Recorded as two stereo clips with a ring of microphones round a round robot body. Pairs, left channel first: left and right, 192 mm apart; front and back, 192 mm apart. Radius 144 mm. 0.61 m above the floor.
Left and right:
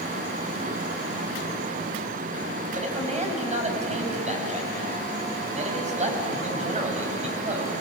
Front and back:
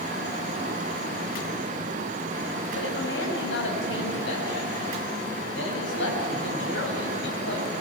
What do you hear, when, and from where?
2.7 s a man speaking: 35° right, 5 m